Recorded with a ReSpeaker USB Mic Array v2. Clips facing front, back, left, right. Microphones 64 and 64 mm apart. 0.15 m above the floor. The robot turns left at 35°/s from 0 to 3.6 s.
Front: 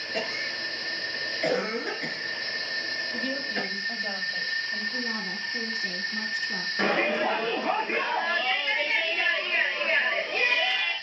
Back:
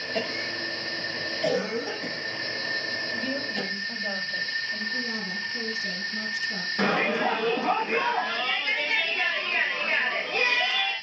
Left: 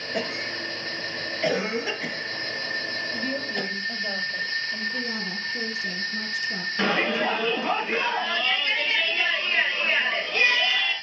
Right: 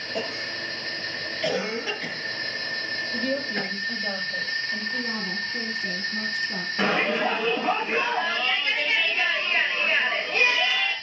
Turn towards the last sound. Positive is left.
turn(degrees=-150)